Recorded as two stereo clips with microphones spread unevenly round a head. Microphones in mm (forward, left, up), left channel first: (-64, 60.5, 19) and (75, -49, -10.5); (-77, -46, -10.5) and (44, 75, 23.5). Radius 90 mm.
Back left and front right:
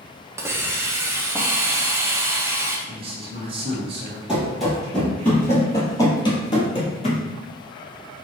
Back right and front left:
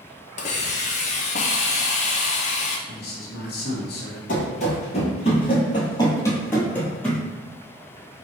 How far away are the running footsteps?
About 1.5 m.